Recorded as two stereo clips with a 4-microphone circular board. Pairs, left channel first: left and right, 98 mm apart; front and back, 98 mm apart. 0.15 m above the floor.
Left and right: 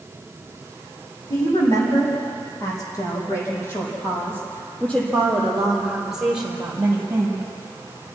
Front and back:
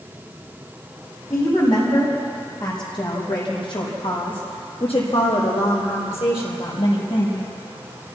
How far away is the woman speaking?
About 9.5 m.